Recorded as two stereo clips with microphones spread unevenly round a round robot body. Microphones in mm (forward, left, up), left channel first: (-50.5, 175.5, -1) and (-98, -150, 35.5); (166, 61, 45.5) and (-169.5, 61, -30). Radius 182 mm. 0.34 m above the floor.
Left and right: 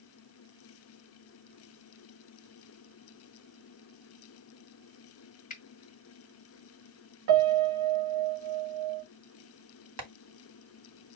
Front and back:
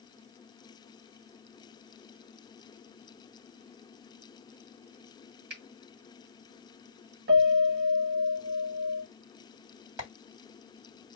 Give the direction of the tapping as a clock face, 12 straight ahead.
4 o'clock.